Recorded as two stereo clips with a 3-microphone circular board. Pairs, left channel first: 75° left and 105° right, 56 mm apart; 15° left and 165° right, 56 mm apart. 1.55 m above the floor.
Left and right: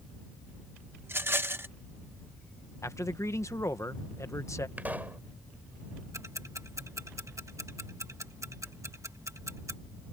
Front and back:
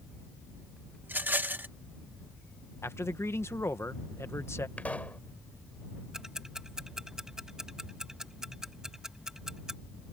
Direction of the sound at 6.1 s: 85° right.